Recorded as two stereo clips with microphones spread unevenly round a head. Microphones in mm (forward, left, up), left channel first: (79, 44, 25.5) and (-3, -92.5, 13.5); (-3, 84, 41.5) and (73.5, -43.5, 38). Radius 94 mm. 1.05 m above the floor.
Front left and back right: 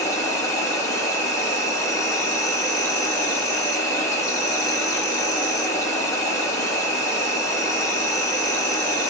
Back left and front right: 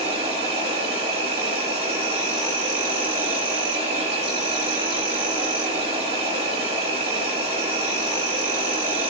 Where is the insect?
10° right, 0.8 m.